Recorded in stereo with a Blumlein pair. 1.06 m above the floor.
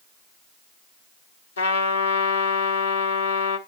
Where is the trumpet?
70° left, 1.8 m.